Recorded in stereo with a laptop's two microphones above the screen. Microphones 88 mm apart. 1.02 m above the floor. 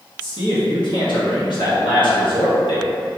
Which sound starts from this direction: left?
A man speaking, at 0.2 s.